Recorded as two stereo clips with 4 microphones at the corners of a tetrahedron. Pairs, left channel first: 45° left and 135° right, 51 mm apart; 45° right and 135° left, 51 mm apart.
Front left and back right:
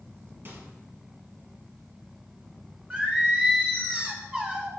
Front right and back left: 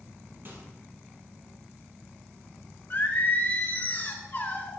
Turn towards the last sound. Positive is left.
turn(degrees=-75)